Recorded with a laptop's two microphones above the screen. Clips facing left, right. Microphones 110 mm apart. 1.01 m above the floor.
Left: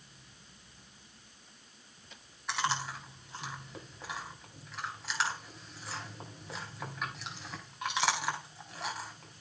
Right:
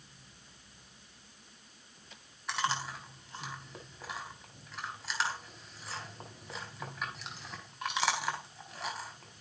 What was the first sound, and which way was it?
Chewing, centre (ahead or behind).